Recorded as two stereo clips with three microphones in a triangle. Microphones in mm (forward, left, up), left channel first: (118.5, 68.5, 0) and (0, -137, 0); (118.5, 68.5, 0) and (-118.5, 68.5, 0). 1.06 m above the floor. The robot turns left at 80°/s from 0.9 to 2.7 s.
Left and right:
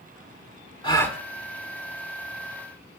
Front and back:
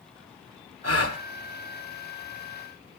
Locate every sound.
0.8 s a gasp: 10° right, 1.8 m; by 1.2 s 35° right, 1.8 m